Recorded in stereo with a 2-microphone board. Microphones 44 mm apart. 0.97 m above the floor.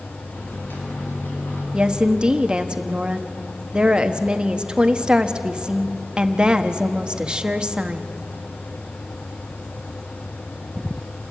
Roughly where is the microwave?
Left.